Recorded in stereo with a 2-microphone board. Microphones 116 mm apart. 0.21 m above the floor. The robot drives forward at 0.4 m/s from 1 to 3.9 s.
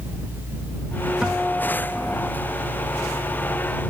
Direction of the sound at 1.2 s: 5° right (ahead or behind).